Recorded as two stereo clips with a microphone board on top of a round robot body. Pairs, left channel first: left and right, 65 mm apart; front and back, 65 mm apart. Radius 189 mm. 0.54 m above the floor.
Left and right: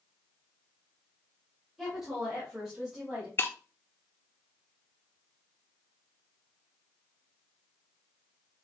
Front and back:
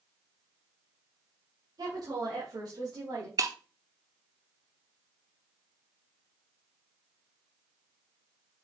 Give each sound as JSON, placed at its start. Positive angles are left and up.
{"t": 1.8, "sound": "a woman speaking", "azimuth_deg": -175, "distance_m": 3.0}
{"t": 3.4, "sound": "breaking glass", "azimuth_deg": 145, "distance_m": 0.8}